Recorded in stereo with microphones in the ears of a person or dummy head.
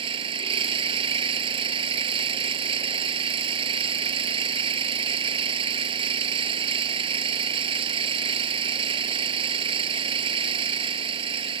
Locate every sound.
0.0 s an engine running: 35° right (ahead or behind)